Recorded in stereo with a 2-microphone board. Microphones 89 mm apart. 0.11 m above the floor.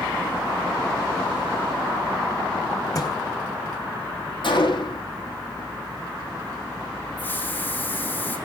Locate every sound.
3.0 s a thud: 45° left (ahead or behind), 2.5 m
4.4 s a gunshot: 65° left (ahead or behind), 5 m
7.2 s a hiss: 20° left (ahead or behind), 4 m